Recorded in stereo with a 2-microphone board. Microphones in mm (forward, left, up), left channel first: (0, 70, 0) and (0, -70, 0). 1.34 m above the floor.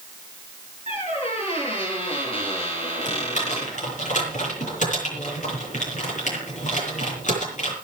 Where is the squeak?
50° left (ahead or behind), 7.5 m.